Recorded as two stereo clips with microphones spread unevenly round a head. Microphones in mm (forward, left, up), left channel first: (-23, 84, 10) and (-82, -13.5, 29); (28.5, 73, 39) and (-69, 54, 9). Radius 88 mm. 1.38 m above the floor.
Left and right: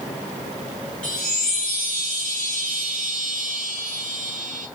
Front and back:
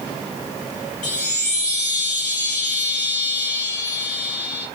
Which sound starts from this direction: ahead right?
A chime, at 1.0 s.